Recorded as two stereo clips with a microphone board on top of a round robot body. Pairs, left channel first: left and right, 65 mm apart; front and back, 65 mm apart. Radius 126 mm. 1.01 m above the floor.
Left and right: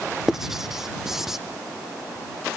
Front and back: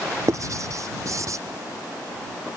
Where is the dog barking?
No dog barking in this recording.